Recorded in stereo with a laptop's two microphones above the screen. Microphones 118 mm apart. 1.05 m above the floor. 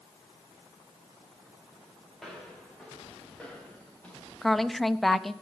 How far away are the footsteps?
About 6 m.